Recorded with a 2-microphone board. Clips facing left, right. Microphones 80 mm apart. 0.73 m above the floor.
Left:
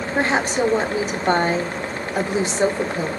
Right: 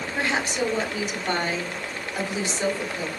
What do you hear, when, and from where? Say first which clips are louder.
0.1 s a woman speaking: left 6 dB; 35° left (ahead or behind), 1.6 m